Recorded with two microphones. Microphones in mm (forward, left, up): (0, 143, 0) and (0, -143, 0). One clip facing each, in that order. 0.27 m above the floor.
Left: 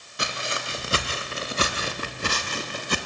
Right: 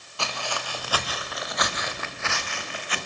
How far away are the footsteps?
About 4 m.